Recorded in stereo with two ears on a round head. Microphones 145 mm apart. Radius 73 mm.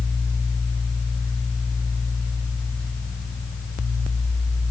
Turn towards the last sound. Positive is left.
No sound to turn to.